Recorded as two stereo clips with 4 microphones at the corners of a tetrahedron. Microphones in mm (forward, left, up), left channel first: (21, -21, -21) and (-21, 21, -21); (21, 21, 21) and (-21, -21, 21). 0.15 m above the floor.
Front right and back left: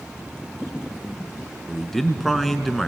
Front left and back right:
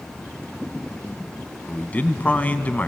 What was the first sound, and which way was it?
A man speaking, 35° left.